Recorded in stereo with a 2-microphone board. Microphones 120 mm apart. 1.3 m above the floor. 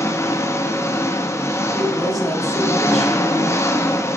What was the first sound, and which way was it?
An engine running, 20° left (ahead or behind).